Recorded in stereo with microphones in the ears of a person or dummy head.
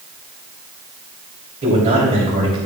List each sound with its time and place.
1.6 s a man speaking: 30° right (ahead or behind), 3 m